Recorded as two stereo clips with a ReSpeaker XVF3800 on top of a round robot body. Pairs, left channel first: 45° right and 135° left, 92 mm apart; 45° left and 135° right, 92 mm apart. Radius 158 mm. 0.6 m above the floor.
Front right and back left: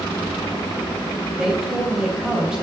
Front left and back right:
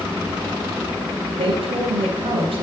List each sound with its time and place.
1.4 s a woman speaking: 145° right, 3.5 m